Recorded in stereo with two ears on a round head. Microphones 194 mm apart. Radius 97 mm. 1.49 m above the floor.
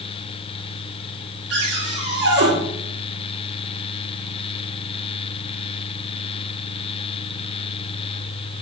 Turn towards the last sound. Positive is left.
turn(degrees=-50)  # may be behind; listen again after turning